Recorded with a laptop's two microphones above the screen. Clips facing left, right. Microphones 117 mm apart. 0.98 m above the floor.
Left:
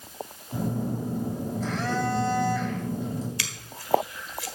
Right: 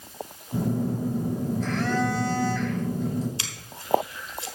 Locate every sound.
0.5 s a phone buzzing: 5° left (ahead or behind), 5.5 m
3.4 s scissors: 25° right (ahead or behind), 1.4 m